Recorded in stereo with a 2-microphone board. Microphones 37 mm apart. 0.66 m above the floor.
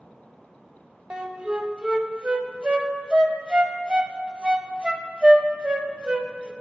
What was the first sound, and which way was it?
A flute, 25° right (ahead or behind).